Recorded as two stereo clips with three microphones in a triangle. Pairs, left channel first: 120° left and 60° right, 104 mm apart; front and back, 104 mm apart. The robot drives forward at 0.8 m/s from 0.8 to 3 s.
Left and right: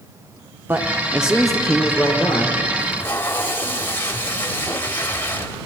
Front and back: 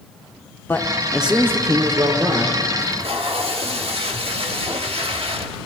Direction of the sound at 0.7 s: 35° right.